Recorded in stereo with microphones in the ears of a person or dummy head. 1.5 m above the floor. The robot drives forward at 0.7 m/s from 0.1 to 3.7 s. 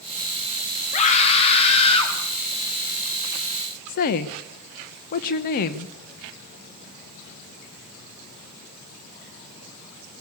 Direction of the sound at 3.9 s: 50° left (ahead or behind).